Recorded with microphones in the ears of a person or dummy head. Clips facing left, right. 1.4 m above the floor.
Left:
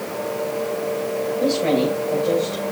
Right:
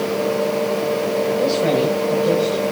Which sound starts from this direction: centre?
A woman speaking, at 1.4 s.